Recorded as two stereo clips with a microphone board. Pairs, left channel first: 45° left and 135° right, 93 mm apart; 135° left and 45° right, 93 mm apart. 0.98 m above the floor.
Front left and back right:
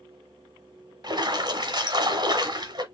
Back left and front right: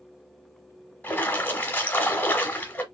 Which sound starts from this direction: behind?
A splash, at 1.0 s.